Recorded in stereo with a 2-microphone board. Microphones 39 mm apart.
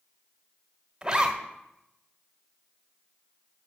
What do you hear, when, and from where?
1.0 s a zipper: 20° right (ahead or behind), 1.4 m